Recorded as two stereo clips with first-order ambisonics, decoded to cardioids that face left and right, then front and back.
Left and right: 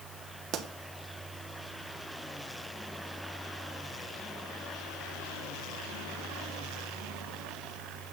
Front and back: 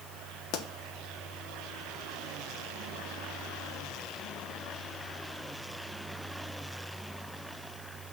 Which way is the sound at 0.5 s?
40° right.